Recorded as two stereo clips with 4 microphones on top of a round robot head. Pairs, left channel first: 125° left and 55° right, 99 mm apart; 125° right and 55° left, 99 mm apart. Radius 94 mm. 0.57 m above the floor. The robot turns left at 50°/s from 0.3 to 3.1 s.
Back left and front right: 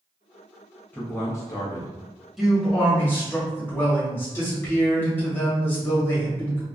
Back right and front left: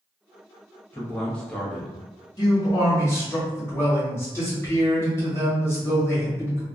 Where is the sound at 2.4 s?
140° right, 1.4 m; by 6.7 s 175° right, 1.4 m.